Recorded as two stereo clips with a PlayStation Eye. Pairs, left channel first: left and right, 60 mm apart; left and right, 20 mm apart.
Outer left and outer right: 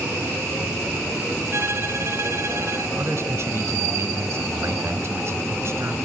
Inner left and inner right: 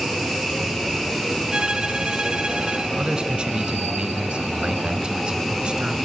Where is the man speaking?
45° right (ahead or behind), 2 m.